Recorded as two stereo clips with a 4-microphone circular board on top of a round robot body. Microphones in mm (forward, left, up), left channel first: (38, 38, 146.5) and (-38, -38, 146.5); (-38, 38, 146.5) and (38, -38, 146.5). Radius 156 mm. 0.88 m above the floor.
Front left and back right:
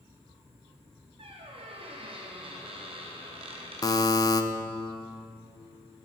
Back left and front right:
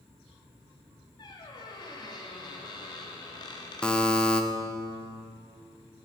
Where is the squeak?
170° right, 0.9 m.